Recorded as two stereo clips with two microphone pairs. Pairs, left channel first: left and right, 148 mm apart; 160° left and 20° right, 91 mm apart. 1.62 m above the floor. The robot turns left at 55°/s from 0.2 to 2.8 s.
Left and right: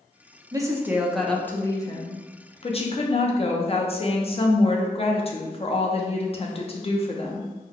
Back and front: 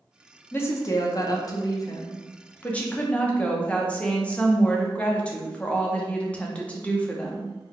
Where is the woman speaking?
145° right, 0.6 m; by 7.5 s 85° left, 0.6 m.